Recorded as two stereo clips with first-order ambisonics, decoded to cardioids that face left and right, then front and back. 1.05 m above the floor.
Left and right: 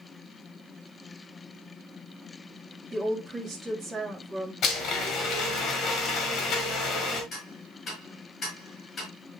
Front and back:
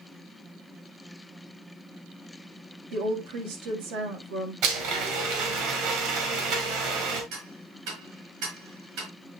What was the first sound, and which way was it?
A woman speaking, 170° right.